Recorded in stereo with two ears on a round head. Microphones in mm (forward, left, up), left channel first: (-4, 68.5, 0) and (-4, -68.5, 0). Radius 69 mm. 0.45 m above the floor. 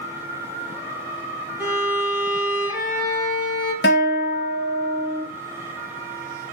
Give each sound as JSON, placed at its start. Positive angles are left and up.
{"t": 1.6, "sound": "a violin", "side_deg": -5, "distance_m": 1.9}
{"t": 3.8, "sound": "a guitar", "side_deg": 75, "distance_m": 1.3}